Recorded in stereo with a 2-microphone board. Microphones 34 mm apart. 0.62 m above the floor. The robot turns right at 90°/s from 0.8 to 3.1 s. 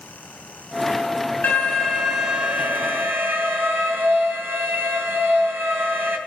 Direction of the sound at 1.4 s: 125° left.